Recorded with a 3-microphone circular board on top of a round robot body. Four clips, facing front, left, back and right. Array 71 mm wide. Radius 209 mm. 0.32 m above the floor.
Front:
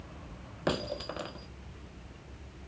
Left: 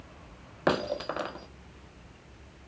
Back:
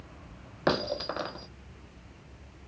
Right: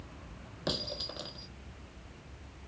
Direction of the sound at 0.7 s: 135° left.